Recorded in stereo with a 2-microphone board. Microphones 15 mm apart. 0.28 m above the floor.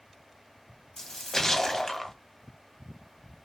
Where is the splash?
35° left (ahead or behind), 0.6 m.